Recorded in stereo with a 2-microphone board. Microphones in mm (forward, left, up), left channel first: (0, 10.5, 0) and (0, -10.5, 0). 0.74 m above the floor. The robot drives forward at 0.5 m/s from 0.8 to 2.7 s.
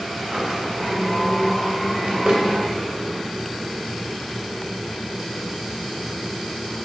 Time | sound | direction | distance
0.2 | a drawer | 35° right (ahead or behind) | 2.5 m